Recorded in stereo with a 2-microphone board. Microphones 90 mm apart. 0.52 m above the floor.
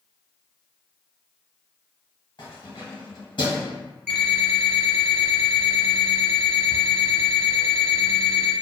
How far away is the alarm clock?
About 0.9 m.